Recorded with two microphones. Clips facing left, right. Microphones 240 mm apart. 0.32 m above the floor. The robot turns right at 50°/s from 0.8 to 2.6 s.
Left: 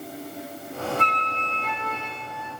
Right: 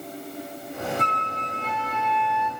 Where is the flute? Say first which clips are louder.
Even; 70° left, 0.5 m; by 2.5 s 145° left, 0.5 m.